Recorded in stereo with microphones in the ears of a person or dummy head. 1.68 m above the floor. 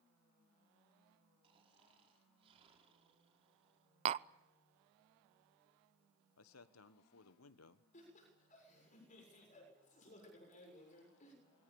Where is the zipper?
I don't hear a zipper.